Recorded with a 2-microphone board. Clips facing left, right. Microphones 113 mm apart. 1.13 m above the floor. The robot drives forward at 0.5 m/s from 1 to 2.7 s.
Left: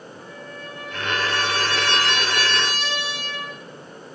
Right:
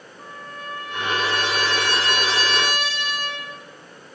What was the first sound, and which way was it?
A trumpet, 55° right (ahead or behind).